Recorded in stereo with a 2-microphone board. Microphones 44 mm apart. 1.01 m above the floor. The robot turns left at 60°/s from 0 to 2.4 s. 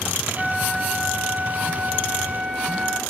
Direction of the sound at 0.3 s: 10° right.